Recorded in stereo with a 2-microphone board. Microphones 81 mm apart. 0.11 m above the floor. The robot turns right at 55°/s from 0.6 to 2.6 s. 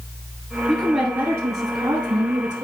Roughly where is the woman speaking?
Behind.